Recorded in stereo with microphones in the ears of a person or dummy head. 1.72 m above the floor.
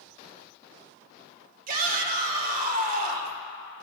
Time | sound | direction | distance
1.7 | a shout | 55° right (ahead or behind) | 1.7 m